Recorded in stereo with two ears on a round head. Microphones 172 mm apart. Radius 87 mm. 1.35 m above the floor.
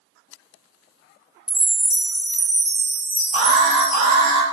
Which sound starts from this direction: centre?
A chime, at 1.5 s.